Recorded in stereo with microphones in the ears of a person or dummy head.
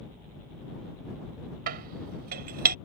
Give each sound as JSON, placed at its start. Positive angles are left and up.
{"t": 1.7, "sound": "dishes clattering", "side_deg": -55}